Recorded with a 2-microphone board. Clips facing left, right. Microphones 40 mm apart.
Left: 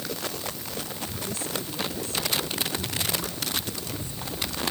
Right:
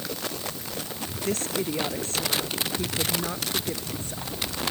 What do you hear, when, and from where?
1.2 s a woman speaking: 60° right (ahead or behind); by 4.3 s 65° right (ahead or behind)